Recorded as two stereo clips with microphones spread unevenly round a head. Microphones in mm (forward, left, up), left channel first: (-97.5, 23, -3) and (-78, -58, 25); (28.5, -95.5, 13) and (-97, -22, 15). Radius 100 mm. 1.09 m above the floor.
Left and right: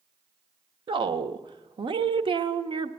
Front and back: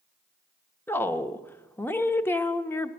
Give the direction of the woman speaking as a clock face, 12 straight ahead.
3 o'clock.